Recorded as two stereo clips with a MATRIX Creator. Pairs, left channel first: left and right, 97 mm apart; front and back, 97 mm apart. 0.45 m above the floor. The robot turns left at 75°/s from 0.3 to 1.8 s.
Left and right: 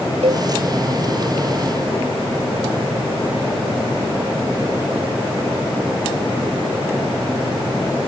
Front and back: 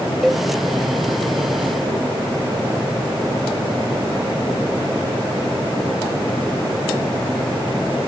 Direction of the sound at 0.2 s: 90° right.